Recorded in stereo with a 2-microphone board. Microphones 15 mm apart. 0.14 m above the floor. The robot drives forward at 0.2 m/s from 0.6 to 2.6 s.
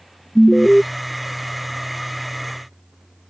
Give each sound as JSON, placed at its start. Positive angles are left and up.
{"t": 0.3, "sound": "an alarm", "side_deg": 5}